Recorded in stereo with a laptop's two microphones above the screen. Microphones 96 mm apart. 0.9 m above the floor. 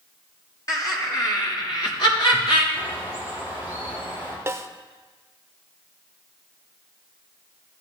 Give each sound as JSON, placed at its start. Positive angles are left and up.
{"t": 0.7, "sound": "laughter", "side_deg": 40, "distance_m": 2.5}
{"t": 2.7, "sound": "a bird", "side_deg": 80, "distance_m": 3.0}
{"t": 4.5, "sound": "a snare drum", "side_deg": -30, "distance_m": 0.6}